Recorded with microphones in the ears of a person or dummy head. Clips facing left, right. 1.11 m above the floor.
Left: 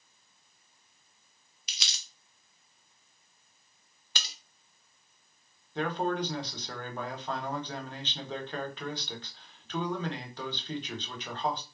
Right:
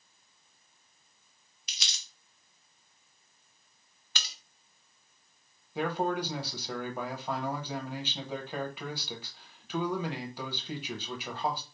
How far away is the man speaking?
About 1.0 m.